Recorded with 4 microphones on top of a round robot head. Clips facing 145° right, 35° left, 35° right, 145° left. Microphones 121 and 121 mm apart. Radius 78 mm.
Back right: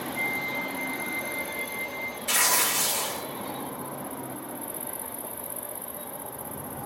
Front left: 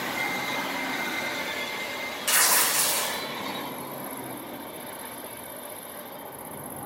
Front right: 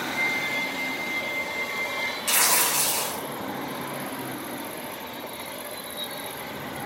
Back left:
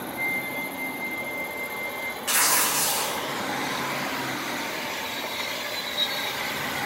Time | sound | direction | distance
0.1 | a flute | 20° right | 6.5 m
2.3 | tearing paper | 25° left | 5 m